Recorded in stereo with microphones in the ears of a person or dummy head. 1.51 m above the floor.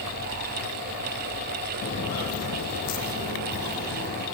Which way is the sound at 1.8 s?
35° left (ahead or behind).